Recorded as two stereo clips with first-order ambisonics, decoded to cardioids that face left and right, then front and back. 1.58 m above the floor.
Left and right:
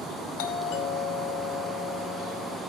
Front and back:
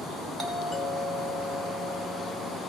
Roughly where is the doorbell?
Left.